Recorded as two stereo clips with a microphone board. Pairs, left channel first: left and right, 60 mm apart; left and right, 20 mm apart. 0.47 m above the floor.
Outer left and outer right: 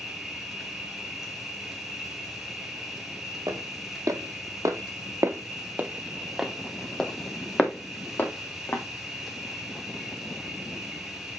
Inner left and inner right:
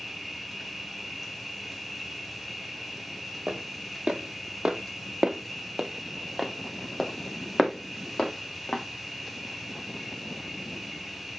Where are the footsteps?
70° right (ahead or behind), 1.4 m; by 8.8 s 35° left (ahead or behind), 1.8 m.